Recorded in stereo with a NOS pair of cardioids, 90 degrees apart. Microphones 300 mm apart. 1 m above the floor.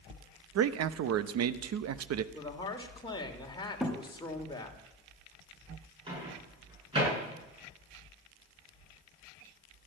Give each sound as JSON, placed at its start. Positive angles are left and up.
{"t": 0.6, "sound": "a man speaking", "azimuth_deg": -60, "distance_m": 1.0}
{"t": 2.3, "sound": "a woman speaking", "azimuth_deg": 15, "distance_m": 2.5}
{"t": 3.8, "sound": "a thud", "azimuth_deg": 0, "distance_m": 5.5}
{"t": 6.1, "sound": "a microwave", "azimuth_deg": -15, "distance_m": 8.5}